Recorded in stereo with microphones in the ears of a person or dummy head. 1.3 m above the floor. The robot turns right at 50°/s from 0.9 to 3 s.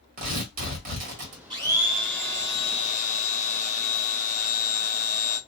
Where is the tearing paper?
45° right (ahead or behind), 1.4 m; by 1.4 s 60° right (ahead or behind), 1.4 m.